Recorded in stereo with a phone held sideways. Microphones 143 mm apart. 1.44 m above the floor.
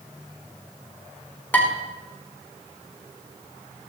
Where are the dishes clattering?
10° left (ahead or behind), 3 m.